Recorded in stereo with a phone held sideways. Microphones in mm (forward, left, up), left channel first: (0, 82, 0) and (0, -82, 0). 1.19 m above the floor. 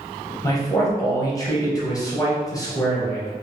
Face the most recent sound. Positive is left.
turn(degrees=20)  # may be behind; listen again after turning